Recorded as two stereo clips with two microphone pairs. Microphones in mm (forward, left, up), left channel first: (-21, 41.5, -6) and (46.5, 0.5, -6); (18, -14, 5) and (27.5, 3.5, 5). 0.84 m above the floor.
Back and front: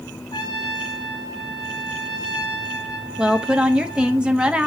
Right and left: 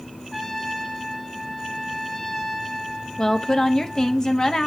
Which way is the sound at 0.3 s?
155° left.